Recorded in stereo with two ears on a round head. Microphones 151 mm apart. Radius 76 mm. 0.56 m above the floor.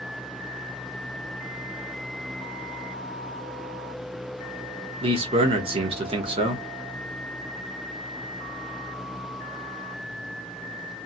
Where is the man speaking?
35° right (ahead or behind), 0.8 m.